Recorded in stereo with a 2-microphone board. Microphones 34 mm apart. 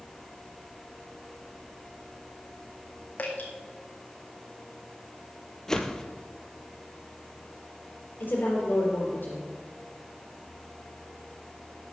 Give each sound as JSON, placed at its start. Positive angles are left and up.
{"t": 3.2, "sound": "dripping", "side_deg": 50, "distance_m": 1.8}
{"t": 5.7, "sound": "a whoosh", "side_deg": 20, "distance_m": 0.8}
{"t": 8.2, "sound": "a woman speaking", "side_deg": 65, "distance_m": 3.5}